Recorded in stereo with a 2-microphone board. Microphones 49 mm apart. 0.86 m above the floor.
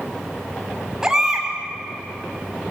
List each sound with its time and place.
1.0 s a baby crying: 10° right (ahead or behind), 4 m